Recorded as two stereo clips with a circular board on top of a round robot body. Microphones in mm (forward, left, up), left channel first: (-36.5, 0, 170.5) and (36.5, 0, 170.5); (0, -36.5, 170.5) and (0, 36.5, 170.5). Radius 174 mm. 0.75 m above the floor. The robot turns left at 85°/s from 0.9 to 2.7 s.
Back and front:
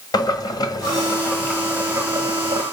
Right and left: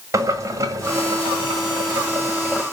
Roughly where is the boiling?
Behind left.